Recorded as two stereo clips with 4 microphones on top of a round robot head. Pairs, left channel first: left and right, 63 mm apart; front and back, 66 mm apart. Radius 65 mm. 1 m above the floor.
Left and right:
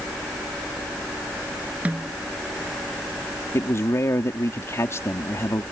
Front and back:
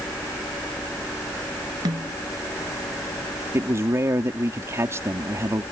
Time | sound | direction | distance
1.9 | a snare drum | 155° right | ?
3.5 | a man speaking | 135° left | ?